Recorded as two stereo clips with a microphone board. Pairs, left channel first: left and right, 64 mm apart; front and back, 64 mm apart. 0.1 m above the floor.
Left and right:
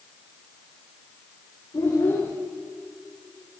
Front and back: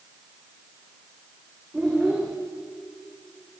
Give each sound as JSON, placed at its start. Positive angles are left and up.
{"t": 1.7, "sound": "a child speaking", "azimuth_deg": 100, "distance_m": 6.0}